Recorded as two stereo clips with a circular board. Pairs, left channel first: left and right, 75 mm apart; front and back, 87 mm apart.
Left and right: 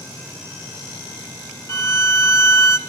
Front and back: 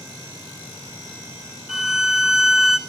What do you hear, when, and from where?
1.7 s a violin: 95° left, 0.5 m